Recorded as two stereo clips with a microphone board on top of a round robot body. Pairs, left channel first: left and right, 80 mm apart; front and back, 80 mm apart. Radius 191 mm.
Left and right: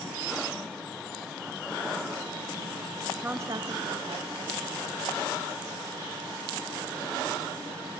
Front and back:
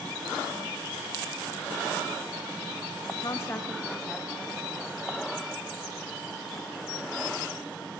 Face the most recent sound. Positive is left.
turn(degrees=-105)